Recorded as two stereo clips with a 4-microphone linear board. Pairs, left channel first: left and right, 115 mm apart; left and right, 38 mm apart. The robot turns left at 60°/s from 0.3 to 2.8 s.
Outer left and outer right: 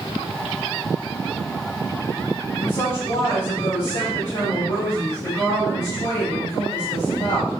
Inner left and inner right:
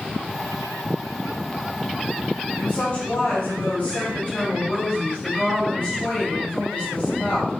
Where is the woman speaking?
30° left (ahead or behind), 2 m; by 7.5 s 45° left (ahead or behind), 2 m.